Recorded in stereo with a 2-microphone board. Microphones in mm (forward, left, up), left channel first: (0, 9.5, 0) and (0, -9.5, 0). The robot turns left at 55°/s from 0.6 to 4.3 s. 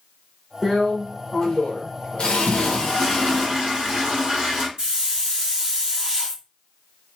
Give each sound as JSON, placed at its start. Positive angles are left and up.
{"t": 0.6, "sound": "a drill", "azimuth_deg": -170, "distance_m": 1.1}
{"t": 2.5, "sound": "a toilet flushing", "azimuth_deg": -5, "distance_m": 1.9}
{"t": 4.8, "sound": "a hiss", "side_deg": -45, "distance_m": 2.0}